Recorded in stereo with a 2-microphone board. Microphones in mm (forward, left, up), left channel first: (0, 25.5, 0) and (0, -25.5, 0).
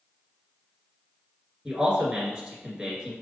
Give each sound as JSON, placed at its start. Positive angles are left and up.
{"t": 1.6, "sound": "a man speaking", "side_deg": -20, "distance_m": 1.7}